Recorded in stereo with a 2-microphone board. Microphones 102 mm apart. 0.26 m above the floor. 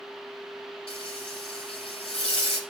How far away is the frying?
About 3.5 m.